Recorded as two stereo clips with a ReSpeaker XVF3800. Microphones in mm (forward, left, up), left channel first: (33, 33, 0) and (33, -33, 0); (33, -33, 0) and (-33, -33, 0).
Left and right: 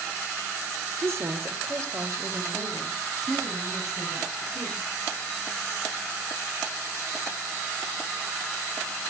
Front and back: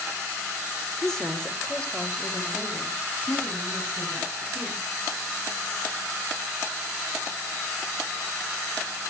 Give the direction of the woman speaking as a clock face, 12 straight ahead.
3 o'clock.